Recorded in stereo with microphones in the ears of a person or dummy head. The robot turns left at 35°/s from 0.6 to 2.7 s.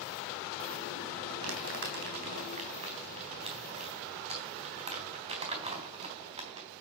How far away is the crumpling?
About 3.5 m.